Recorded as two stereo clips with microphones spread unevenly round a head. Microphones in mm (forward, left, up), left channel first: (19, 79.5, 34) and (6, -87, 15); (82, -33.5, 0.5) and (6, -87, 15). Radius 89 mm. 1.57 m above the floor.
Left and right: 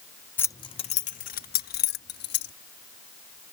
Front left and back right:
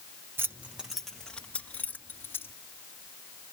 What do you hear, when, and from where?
0.4 s keys jangling: 155° left; by 2.5 s 115° left